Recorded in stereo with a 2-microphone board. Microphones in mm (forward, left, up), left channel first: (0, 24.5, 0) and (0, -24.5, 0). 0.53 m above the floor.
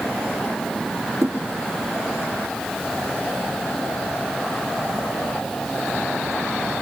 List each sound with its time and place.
1.2 s a thud: 75° right (ahead or behind), 3.5 m